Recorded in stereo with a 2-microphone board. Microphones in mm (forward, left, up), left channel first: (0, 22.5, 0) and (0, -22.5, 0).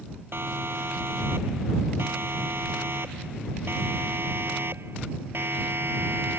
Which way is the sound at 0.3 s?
65° right (ahead or behind).